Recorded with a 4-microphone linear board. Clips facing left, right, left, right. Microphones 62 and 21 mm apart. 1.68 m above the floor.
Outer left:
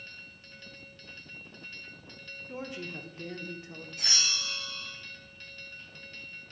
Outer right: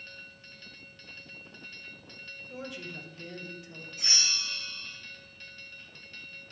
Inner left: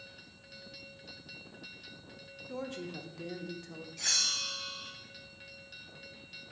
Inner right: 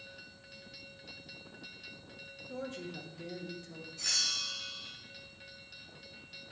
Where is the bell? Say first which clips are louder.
Even, inner left 2 dB; 80° left, 1.7 m.